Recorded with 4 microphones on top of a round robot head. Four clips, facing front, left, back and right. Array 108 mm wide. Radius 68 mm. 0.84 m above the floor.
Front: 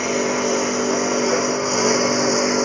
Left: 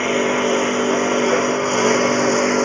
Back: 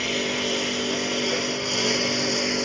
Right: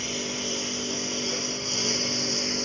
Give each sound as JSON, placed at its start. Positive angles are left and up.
{"t": 0.0, "sound": "a lawn mower", "azimuth_deg": 65}